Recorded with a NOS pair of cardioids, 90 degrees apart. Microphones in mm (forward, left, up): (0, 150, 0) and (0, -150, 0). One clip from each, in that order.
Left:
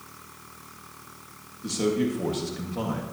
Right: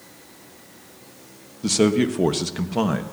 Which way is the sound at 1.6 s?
65° right.